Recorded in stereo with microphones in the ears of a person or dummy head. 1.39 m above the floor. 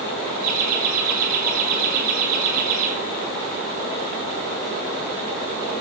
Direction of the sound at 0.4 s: 90° right.